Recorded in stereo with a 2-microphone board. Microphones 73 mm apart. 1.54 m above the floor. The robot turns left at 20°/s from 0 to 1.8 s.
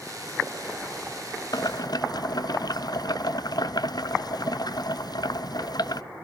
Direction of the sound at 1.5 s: 60° left (ahead or behind).